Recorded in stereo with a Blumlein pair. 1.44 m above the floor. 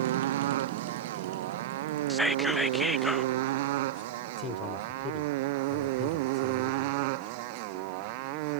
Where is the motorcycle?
60° right; by 8.6 s 45° right.